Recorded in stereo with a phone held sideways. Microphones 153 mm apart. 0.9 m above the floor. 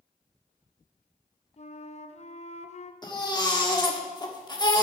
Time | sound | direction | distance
1.6 | a flute | 45° left (ahead or behind) | 0.6 m
3.0 | a baby crying | 30° left (ahead or behind) | 1.6 m